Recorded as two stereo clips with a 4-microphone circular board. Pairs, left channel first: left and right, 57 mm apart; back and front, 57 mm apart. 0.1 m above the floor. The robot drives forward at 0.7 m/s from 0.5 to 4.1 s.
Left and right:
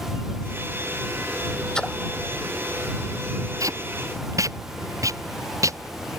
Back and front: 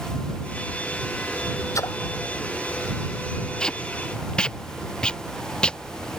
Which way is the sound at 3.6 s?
105° right.